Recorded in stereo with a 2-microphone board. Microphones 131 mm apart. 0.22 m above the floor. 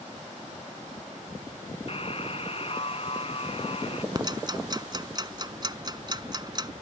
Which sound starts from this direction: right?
Ticking, at 4.2 s.